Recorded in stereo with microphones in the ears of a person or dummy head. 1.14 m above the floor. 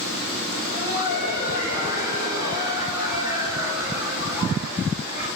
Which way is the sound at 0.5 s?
50° left (ahead or behind).